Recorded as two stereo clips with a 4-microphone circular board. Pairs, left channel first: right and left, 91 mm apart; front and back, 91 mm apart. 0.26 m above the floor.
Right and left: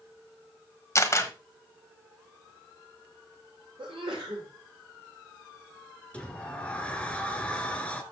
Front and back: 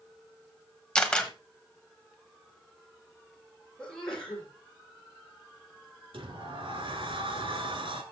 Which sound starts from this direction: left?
A sneeze, at 3.8 s.